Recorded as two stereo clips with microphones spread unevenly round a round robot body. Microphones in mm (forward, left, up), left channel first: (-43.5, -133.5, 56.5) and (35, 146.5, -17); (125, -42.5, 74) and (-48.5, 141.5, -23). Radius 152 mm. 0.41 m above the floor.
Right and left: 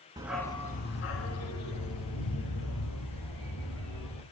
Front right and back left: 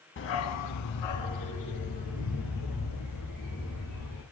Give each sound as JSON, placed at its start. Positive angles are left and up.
{"t": 0.2, "sound": "a dog barking", "azimuth_deg": -5, "distance_m": 0.8}